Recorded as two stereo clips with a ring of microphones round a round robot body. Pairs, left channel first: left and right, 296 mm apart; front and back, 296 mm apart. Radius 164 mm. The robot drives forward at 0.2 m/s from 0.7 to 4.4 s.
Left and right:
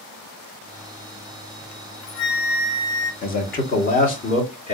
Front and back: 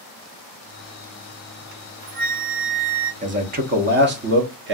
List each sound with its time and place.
1.7 s a flute: 120° left, 0.6 m; by 3.1 s 140° left, 0.8 m
3.2 s a man speaking: 130° left, 0.8 m; by 4.8 s 145° left, 0.9 m